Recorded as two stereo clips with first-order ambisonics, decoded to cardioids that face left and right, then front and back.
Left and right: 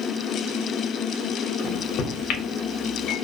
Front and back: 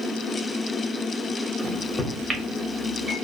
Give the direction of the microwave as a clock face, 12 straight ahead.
9 o'clock.